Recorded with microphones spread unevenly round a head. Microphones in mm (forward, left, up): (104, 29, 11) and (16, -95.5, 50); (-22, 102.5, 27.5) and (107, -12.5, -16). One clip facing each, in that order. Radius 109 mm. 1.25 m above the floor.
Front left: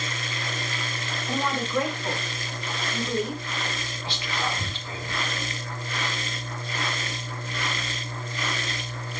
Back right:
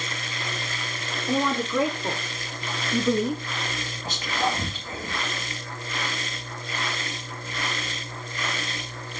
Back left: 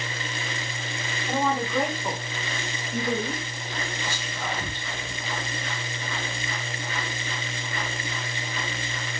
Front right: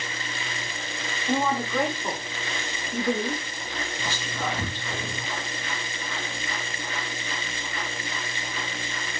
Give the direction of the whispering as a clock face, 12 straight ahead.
3 o'clock.